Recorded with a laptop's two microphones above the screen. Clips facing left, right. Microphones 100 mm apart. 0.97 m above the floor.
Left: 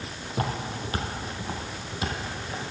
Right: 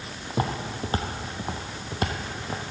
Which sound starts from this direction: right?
Footsteps, at 0.3 s.